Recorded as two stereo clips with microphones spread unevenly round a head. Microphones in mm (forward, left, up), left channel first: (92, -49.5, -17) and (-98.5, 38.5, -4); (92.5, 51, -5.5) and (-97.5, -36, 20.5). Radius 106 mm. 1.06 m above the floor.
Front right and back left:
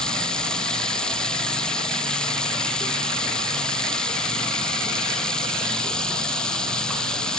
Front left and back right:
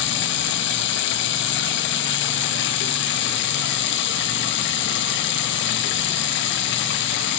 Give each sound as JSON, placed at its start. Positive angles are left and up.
{"t": 0.0, "sound": "running water", "azimuth_deg": 60}